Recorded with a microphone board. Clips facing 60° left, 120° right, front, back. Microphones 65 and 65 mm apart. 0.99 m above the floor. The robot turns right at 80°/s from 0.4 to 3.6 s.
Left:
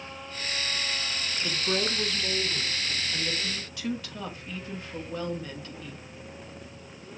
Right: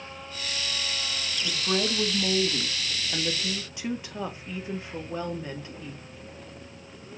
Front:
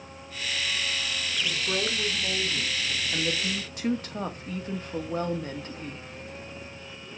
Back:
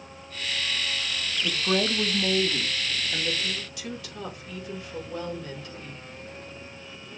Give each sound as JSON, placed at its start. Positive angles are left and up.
{"t": 1.4, "sound": "a woman speaking", "azimuth_deg": 135, "distance_m": 1.5}